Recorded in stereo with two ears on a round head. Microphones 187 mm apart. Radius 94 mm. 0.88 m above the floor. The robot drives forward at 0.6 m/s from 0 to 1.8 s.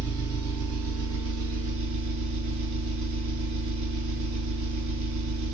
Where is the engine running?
85° right, 4.5 m; by 5.5 s 70° right (ahead or behind), 4.5 m.